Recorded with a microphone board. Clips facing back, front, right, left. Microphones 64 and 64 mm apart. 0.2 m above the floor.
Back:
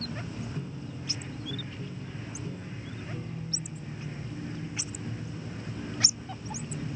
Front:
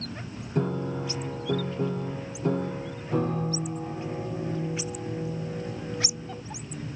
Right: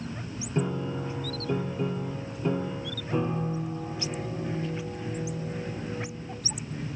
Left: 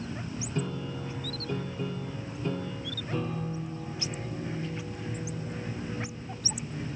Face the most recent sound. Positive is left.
turn(degrees=-20)